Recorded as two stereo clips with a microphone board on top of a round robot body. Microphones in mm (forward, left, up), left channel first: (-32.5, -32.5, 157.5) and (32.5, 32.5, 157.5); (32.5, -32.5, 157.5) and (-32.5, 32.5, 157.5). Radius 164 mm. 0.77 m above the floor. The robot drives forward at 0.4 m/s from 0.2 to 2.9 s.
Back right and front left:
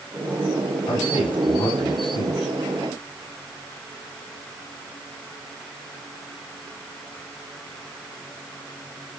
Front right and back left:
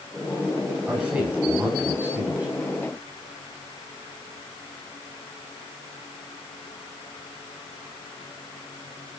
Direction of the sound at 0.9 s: 150° right.